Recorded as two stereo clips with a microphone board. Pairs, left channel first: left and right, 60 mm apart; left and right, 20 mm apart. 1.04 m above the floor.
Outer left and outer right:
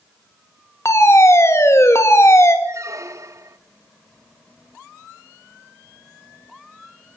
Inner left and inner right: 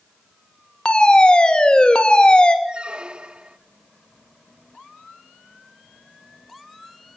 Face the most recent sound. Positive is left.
turn(degrees=-65)  # may be behind; listen again after turning